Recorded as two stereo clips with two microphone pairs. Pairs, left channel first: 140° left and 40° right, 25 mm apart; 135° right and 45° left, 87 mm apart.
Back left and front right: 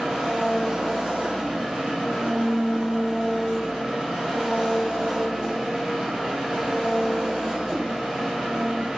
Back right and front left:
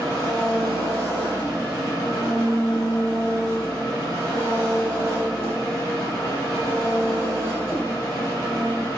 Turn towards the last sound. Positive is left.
turn(degrees=-10)